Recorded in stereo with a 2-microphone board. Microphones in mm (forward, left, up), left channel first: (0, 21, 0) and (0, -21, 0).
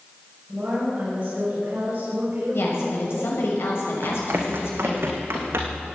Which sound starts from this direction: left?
A woman speaking, at 2.5 s.